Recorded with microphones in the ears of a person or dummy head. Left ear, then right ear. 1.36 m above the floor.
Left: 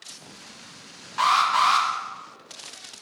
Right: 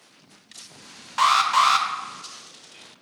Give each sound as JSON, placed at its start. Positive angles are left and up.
{"t": 1.2, "sound": "an alarm", "side_deg": -15, "distance_m": 0.6}